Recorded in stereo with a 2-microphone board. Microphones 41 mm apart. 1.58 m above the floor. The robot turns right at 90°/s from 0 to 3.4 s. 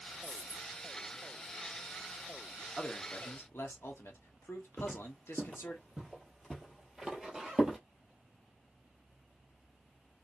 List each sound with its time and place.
0.2 s a dropped coin: 160° left, 1.6 m; by 0.8 s 155° right, 1.6 m
2.8 s a man speaking: 15° left, 1.0 m; by 5.8 s 75° left, 1.0 m
4.8 s footsteps: 15° left (ahead or behind), 1.8 m; by 7.8 s 15° right (ahead or behind), 1.6 m